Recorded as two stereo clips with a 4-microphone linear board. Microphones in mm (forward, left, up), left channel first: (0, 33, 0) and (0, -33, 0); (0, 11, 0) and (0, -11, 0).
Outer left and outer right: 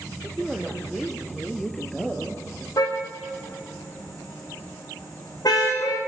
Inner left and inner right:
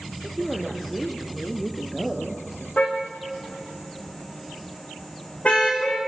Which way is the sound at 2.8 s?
80° left.